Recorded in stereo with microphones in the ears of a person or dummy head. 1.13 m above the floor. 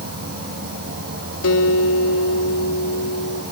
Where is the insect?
55° right (ahead or behind), 4.5 m.